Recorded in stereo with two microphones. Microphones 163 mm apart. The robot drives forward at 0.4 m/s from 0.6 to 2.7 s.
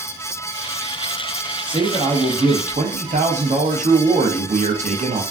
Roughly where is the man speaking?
Right.